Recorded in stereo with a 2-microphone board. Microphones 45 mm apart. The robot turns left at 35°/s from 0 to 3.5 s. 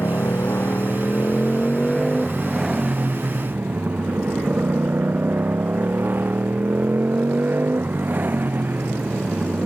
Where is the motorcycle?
80° left; by 9.7 s 40° right.